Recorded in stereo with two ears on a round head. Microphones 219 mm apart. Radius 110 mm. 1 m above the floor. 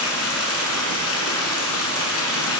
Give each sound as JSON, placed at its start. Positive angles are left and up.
{"t": 0.0, "sound": "running water", "side_deg": 65, "distance_m": 5.5}